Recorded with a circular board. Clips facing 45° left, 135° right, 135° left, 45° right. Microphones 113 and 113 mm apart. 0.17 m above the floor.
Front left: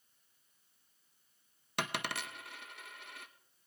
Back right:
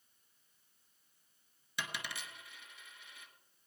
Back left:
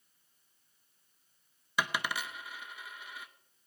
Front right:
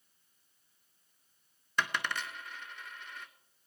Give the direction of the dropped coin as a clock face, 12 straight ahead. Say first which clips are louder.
Front left 6 dB, even; 10 o'clock.